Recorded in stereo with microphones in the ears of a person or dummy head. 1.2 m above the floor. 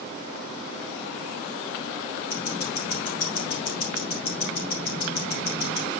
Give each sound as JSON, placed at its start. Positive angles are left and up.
{"t": 2.3, "sound": "ticking", "side_deg": 65, "distance_m": 3.0}